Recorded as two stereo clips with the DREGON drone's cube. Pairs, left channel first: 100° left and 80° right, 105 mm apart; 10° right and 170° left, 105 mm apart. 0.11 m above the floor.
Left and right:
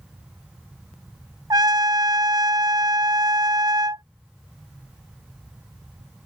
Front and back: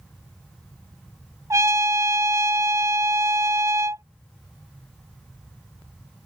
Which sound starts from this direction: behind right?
A trumpet, at 1.5 s.